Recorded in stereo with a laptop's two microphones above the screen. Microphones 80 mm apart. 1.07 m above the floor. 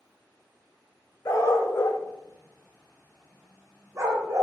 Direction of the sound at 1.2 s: 45° left (ahead or behind).